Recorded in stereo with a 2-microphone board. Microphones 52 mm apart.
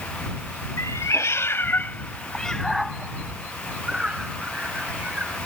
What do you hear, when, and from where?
0.8 s a cat meowing: 80° left; by 5.4 s 25° right (ahead or behind)